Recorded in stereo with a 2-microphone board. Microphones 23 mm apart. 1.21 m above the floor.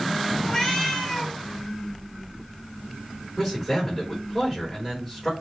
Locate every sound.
0.4 s a cat meowing: 20° left (ahead or behind), 3.5 m
3.4 s a man speaking: 5° right (ahead or behind), 3 m